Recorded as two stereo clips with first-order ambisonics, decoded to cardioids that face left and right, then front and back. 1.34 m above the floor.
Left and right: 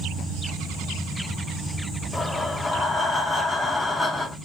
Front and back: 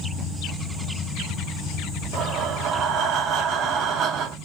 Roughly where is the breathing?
Behind.